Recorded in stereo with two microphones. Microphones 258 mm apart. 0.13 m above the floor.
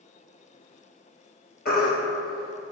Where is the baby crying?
40° left (ahead or behind), 1.1 m.